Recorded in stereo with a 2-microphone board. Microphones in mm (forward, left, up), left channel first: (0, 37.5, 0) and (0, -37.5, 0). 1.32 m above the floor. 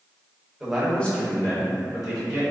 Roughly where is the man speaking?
Centre.